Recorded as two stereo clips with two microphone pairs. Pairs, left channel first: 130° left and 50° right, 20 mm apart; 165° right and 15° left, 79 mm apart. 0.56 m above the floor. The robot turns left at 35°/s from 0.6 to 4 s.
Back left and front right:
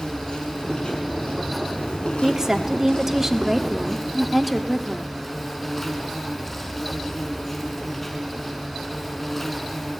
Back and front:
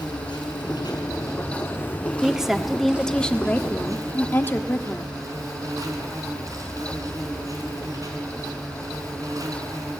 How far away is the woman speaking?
About 1.4 m.